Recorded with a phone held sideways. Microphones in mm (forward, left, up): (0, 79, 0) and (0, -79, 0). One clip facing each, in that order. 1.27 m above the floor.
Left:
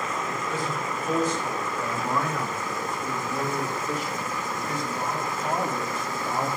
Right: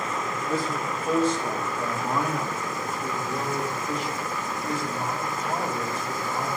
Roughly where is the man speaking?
Right.